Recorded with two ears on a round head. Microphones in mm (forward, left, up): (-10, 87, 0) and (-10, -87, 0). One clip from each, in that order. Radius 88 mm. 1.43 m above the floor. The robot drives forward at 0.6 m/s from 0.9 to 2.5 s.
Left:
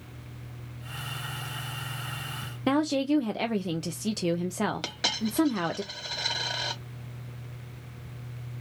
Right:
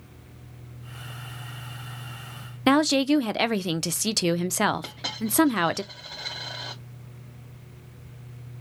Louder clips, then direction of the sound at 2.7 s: Right 5 dB; 45° right (ahead or behind).